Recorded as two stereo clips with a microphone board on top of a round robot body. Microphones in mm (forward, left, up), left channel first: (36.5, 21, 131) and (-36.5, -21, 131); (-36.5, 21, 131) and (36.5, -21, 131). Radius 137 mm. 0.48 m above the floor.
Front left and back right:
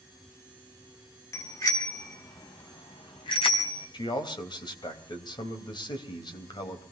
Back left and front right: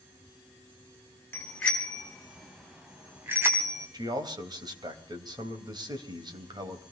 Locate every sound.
1.3 s a bicycle bell: 80° left, 3.5 m; by 3.9 s 25° left, 3 m
3.9 s a man speaking: 5° left, 3.5 m